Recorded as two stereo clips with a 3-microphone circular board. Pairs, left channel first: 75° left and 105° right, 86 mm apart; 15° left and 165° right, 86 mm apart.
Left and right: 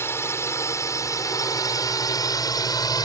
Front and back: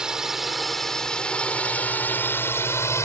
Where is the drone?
115° left; by 3.0 s 60° left.